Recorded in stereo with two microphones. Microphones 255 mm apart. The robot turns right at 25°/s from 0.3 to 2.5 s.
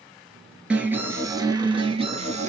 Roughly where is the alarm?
Behind.